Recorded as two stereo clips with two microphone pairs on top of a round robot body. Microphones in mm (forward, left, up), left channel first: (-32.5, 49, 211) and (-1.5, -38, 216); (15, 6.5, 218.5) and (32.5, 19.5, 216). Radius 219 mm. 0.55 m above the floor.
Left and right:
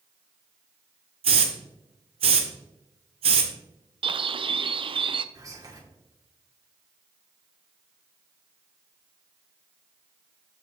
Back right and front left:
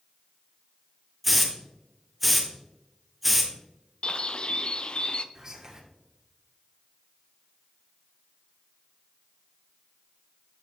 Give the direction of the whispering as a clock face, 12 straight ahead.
1 o'clock.